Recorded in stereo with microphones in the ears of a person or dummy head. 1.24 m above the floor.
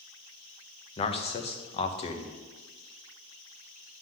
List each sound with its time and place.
1.0 s a man speaking: 30° left (ahead or behind), 0.9 m